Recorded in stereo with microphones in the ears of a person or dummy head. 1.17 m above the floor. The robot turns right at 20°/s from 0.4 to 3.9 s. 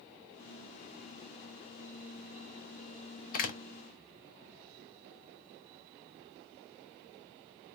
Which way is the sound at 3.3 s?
50° left (ahead or behind).